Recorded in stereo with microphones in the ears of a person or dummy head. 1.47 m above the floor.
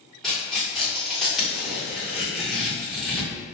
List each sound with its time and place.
0.2 s tearing paper: 5° left (ahead or behind), 1.1 m